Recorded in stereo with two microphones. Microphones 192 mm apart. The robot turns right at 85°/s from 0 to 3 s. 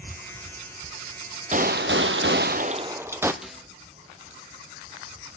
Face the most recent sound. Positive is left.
turn(degrees=-5)  # may be behind; listen again after turning